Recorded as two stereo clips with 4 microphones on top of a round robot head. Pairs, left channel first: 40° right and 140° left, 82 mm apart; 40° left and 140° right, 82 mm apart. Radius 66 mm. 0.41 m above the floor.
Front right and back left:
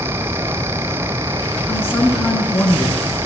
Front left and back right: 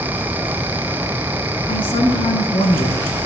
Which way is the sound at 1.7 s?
25° left.